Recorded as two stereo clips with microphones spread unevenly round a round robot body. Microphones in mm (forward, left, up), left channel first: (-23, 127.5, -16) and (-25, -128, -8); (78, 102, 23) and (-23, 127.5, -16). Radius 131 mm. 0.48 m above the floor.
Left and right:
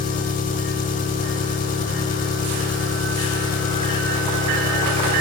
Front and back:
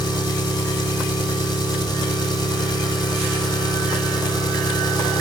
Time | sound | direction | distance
0.0 | an engine running | 50° left | 0.9 m